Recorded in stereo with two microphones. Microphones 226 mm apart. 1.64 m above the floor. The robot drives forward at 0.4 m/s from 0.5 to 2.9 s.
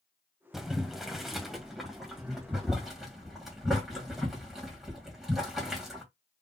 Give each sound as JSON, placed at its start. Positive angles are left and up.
{"t": 0.5, "sound": "boiling", "side_deg": 0, "distance_m": 0.7}